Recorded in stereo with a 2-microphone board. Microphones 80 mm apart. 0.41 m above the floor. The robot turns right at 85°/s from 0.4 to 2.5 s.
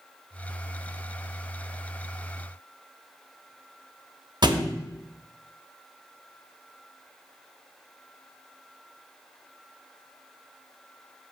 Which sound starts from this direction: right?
A thud, at 4.4 s.